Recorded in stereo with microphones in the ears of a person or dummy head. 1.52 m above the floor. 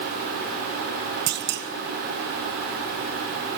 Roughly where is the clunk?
Right.